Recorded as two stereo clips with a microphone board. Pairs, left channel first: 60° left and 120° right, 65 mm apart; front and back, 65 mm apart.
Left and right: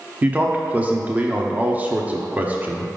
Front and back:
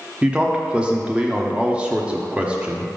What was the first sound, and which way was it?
A man speaking, 130° right.